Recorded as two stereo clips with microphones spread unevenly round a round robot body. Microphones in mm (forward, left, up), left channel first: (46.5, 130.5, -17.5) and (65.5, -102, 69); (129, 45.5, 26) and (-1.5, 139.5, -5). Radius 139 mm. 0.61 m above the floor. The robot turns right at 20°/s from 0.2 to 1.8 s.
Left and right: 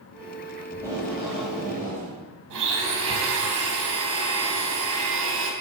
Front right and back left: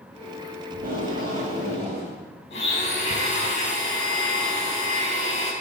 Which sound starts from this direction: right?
A blender, at 2.5 s.